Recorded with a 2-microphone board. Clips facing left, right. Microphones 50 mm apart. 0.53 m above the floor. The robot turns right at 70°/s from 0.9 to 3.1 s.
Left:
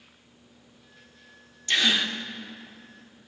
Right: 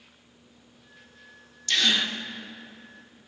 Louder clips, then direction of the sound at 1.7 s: Left 1 dB; 150° left.